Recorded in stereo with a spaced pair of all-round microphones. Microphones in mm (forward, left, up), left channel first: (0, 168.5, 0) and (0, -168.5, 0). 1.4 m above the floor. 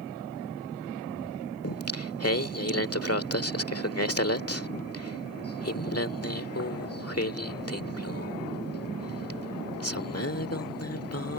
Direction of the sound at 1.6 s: 45° left (ahead or behind).